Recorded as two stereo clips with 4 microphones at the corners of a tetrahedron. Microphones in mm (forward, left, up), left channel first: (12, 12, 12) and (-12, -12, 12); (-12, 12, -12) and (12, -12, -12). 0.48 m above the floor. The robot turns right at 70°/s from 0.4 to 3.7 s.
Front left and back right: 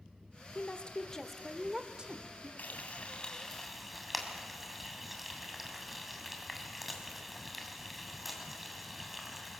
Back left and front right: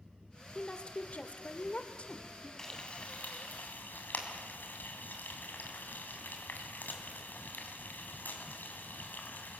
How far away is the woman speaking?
About 1.2 m.